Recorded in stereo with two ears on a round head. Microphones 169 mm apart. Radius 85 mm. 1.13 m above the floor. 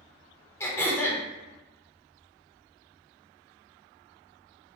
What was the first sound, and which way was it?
Throat clearing, 15° left (ahead or behind).